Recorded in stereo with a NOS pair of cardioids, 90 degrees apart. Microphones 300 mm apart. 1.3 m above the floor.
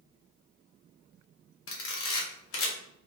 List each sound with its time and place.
1.7 s a camera shutter: 45° left, 1.2 m